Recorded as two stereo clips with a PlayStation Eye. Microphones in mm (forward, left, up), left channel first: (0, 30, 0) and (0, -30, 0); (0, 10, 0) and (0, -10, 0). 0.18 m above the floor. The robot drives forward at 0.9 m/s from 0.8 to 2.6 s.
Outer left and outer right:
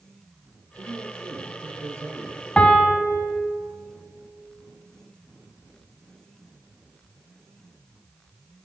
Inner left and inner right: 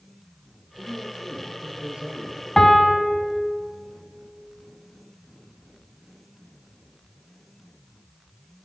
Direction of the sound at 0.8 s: 65° right (ahead or behind).